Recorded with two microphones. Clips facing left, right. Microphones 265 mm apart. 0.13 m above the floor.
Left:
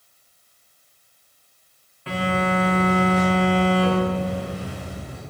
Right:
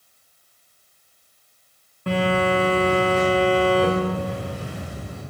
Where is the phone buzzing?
50° right (ahead or behind), 4 m.